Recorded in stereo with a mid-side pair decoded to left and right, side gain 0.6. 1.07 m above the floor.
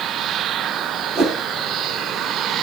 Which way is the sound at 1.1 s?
70° right.